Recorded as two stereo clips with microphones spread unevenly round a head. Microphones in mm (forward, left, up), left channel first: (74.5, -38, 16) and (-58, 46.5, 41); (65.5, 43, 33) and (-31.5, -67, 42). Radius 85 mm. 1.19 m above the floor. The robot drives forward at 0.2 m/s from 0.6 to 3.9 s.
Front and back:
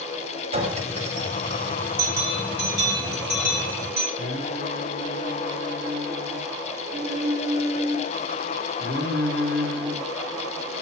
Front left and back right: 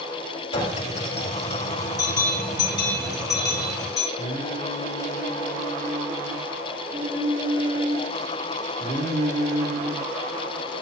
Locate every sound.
0.5 s a clink: 100° left, 5 m; by 1.8 s 105° left, 5 m
2.0 s a bell: 115° left, 5 m; by 4.1 s 120° left, 5.5 m
4.2 s singing: 175° left, 3.5 m